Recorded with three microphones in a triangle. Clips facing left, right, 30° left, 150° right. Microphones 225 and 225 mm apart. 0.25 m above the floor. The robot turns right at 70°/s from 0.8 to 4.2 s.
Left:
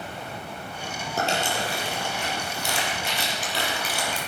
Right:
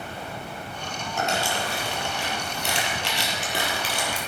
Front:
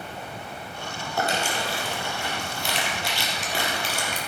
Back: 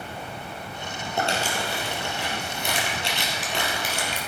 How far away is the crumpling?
About 3 m.